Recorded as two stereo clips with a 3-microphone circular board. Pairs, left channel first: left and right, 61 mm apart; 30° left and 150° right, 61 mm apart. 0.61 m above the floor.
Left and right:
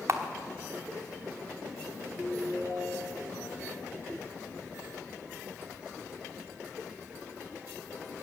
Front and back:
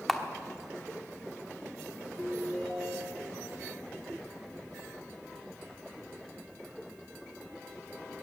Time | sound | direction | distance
0.1 | a camera shutter | 60° right | 1.0 m
2.2 | a ringtone | 110° left | 6 m